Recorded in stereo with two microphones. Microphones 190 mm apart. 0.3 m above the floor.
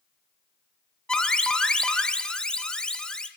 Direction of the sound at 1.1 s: 5° left (ahead or behind).